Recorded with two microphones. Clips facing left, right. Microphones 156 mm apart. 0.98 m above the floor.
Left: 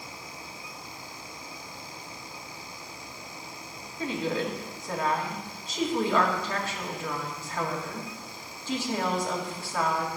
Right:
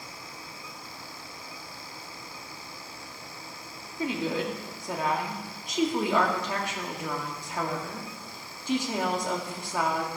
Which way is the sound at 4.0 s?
15° right (ahead or behind).